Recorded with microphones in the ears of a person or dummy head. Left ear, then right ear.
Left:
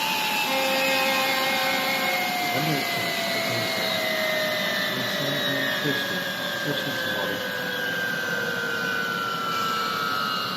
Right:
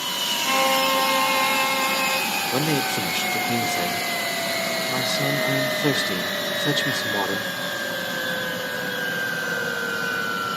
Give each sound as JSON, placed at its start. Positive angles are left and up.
{"t": 0.4, "sound": "a violin", "side_deg": -5, "distance_m": 4.0}
{"t": 2.5, "sound": "a man speaking", "side_deg": -75, "distance_m": 1.1}